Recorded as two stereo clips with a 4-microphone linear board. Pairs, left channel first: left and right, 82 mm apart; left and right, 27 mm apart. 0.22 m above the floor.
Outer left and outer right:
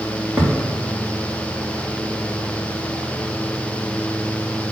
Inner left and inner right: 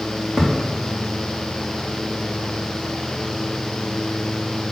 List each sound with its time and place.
0.4 s a thud: 10° right (ahead or behind), 4 m